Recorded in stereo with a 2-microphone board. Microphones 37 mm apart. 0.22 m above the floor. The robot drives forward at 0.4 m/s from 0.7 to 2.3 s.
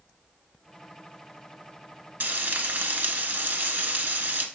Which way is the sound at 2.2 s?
60° right (ahead or behind).